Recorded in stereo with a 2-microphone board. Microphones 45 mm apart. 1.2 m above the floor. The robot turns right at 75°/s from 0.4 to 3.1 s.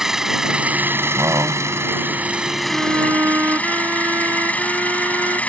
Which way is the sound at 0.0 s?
170° right.